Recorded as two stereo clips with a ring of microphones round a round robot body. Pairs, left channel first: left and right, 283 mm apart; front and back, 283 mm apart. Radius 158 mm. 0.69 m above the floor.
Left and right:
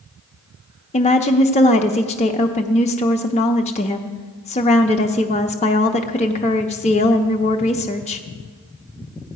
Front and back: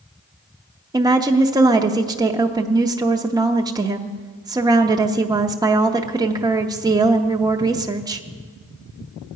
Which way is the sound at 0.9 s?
120° left.